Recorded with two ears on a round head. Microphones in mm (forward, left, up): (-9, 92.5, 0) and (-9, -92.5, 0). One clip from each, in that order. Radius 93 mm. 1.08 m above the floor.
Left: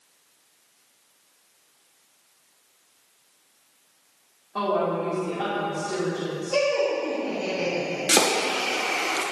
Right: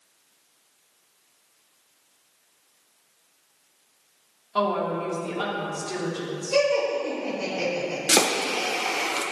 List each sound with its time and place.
4.5 s a woman speaking: 65° right (ahead or behind), 2.5 m
6.5 s laughter: 50° right (ahead or behind), 3 m
8.1 s chopping: 10° right (ahead or behind), 0.7 m